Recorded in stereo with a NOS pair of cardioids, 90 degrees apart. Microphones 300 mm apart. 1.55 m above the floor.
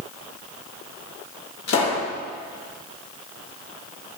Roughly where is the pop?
Ahead left.